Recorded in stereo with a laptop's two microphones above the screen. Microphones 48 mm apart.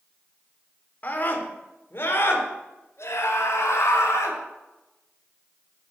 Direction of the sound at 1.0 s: 35° left (ahead or behind).